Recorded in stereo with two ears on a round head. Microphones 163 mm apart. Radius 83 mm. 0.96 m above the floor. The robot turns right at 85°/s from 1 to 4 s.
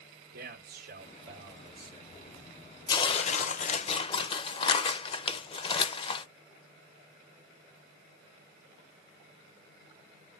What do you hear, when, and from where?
0.3 s a man speaking: 115° right, 3 m; by 2.5 s 15° left, 3 m
2.9 s tearing paper: 35° left, 0.8 m; by 6.2 s 130° left, 0.8 m